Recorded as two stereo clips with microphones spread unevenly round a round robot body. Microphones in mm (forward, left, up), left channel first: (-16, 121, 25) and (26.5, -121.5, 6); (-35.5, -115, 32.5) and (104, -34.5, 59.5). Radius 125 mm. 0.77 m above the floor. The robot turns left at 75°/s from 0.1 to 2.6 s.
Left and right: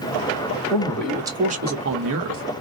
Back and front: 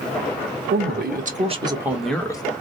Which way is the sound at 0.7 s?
35° left.